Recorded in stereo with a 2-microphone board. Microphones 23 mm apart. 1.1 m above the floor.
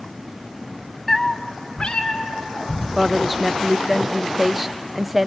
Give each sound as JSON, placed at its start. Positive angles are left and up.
{"t": 1.1, "sound": "a cat meowing", "side_deg": 15, "distance_m": 0.6}
{"t": 3.0, "sound": "a woman speaking", "side_deg": -15, "distance_m": 0.5}